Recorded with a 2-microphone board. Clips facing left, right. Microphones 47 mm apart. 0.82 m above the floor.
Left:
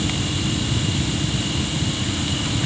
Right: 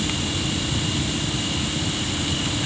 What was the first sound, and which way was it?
Only background noise.